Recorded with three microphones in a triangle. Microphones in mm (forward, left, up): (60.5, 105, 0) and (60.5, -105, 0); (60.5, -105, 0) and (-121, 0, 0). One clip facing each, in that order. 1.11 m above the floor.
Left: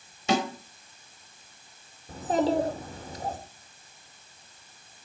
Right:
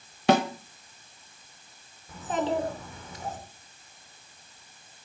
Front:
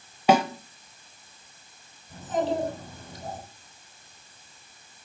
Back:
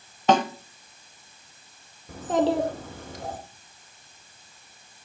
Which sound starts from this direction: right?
A snare drum, at 0.3 s.